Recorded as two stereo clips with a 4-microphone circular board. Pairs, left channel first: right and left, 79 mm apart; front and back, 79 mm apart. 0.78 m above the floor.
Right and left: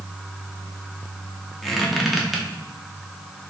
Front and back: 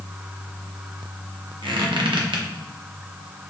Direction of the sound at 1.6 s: Straight behind.